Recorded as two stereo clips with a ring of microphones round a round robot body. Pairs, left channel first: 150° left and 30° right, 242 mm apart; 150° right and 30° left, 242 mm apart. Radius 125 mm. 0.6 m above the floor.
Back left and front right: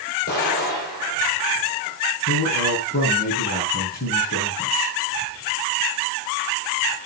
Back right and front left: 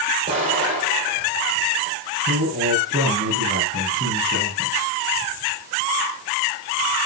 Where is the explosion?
100° left, 6 m.